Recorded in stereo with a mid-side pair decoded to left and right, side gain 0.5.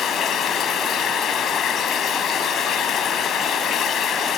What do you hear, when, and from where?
0.0 s running water: 55° left